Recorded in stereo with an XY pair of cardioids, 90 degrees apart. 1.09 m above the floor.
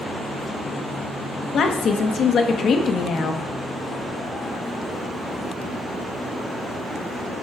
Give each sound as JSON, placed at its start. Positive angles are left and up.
{"t": 1.5, "sound": "a woman speaking", "azimuth_deg": 65, "distance_m": 0.9}